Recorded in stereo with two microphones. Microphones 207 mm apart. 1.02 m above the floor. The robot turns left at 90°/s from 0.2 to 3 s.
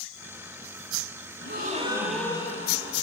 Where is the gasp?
110° right, 1.3 m; by 3.0 s 105° left, 1.3 m.